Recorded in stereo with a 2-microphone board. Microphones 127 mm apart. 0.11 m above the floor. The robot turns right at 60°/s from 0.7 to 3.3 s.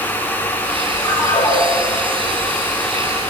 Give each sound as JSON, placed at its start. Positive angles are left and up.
{"t": 1.1, "sound": "a ringtone", "azimuth_deg": 20, "distance_m": 5.0}